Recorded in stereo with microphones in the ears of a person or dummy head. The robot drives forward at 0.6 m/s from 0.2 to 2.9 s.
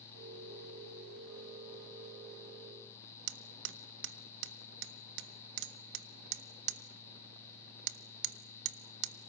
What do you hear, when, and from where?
3.3 s hammering: 65° right (ahead or behind), 0.8 m